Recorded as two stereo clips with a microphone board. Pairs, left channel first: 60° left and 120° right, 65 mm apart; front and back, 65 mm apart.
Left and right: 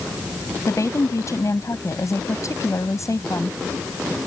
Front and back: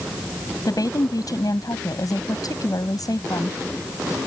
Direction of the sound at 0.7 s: 20° left.